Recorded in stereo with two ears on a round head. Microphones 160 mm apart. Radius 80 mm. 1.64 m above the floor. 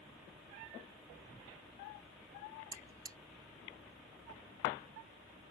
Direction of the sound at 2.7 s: 20° right (ahead or behind).